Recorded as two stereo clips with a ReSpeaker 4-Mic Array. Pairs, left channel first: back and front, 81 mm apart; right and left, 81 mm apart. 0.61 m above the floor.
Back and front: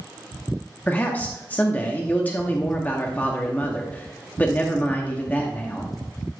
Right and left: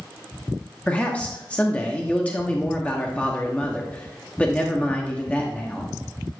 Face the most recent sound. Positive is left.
turn(degrees=-145)